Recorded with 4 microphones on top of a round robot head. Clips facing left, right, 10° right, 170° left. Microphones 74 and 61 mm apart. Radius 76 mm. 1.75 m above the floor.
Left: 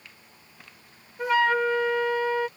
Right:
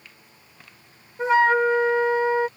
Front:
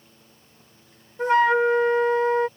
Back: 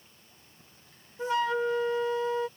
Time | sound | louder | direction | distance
1.2 | a flute | right 4 dB, front 9 dB | 25° right | ?